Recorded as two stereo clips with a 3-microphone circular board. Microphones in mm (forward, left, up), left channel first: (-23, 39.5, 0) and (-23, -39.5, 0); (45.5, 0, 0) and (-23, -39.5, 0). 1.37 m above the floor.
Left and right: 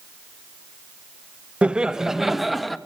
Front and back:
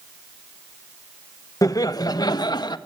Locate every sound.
1.6 s laughter: 15° right, 1.2 m; by 2.8 s straight ahead, 2 m